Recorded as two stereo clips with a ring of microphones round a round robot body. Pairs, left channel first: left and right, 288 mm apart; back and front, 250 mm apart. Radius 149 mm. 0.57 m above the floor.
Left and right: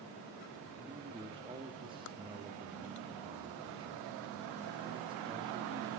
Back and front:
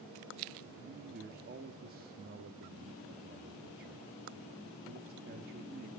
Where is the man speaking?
25° right, 0.9 m.